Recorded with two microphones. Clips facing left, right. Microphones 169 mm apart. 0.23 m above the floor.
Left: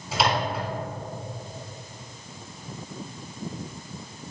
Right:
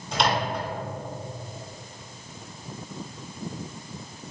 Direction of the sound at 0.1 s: 5° left (ahead or behind).